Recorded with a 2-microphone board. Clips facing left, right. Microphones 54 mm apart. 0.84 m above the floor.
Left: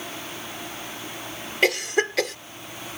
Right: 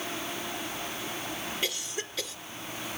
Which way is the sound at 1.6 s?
70° left (ahead or behind).